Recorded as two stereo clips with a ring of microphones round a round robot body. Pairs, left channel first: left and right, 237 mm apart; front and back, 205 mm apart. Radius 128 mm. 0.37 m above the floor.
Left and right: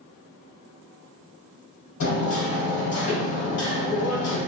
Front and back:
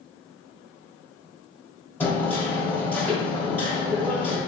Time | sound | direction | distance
2.0 | hammering | 80° left | 1.1 m